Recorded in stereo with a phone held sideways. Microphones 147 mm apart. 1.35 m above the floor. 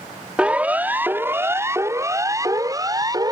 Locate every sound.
0.4 s a siren: 10° right (ahead or behind); by 3.3 s 30° right (ahead or behind)